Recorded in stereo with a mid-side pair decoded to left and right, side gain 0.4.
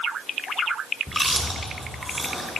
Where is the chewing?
Straight ahead, 3 m.